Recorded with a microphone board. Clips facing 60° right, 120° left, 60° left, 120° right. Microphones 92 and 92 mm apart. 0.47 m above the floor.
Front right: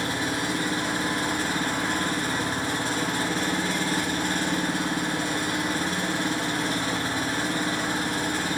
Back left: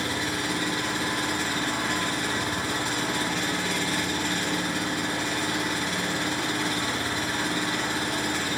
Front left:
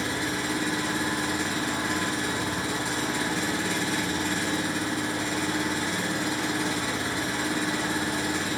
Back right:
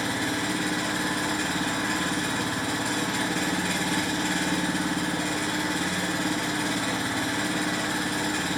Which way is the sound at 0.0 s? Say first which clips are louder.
Front right 2 dB, back right 1 dB; 105° right.